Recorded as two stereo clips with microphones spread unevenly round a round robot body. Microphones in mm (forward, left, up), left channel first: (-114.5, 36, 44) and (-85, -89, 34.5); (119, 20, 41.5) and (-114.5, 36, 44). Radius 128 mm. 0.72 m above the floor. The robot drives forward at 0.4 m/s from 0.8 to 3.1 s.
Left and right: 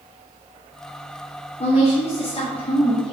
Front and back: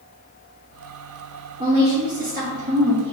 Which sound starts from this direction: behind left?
A woman speaking, at 1.6 s.